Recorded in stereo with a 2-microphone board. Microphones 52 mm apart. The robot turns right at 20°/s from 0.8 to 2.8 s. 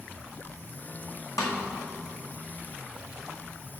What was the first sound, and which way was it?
A snare drum, 75° left (ahead or behind).